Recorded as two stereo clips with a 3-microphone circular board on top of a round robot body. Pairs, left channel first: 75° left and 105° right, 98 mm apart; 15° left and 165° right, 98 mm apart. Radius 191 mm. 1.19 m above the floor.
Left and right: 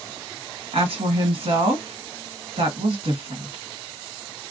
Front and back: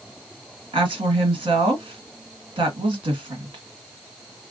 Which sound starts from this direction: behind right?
A woman speaking, at 0.7 s.